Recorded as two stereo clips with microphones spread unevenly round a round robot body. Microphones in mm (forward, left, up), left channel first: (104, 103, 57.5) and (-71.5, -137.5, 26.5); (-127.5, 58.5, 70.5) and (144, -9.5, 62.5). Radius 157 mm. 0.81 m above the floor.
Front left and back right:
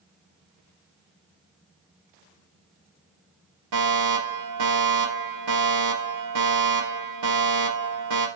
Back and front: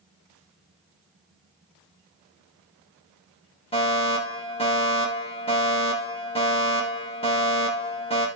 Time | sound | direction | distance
3.7 | a fire alarm | 125° right | 5.5 m